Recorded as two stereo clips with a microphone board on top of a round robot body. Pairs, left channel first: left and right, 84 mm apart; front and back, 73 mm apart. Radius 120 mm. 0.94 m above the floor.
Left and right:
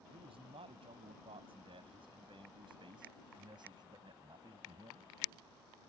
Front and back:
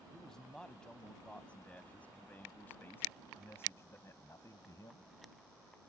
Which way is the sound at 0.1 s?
80° right.